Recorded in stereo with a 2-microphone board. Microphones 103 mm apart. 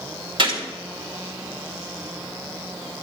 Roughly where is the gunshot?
Right.